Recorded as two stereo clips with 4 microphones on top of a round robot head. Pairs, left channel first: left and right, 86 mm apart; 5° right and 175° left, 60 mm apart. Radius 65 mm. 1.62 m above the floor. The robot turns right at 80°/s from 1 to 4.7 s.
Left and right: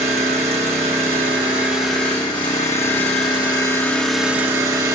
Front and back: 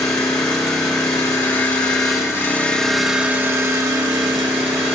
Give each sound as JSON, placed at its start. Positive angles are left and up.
{"t": 0.0, "sound": "an engine running", "azimuth_deg": -70, "distance_m": 1.6}